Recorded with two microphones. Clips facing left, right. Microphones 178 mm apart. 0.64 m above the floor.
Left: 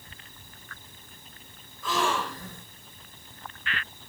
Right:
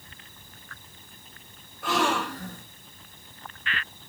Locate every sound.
1.8 s a gasp: 65° right (ahead or behind), 3.5 m